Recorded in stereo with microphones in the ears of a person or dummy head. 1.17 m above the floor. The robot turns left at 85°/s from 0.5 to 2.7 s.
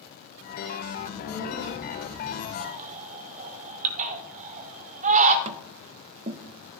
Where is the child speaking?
90° right, 4.5 m; by 2.5 s 140° left, 4.5 m.